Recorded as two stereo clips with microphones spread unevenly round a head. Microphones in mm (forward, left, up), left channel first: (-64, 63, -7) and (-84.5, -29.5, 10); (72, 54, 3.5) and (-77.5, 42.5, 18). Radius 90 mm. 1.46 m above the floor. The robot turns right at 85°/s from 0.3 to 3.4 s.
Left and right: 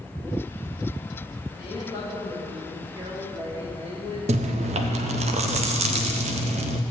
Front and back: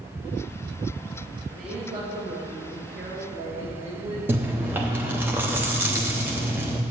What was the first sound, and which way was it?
A woman speaking, 85° left.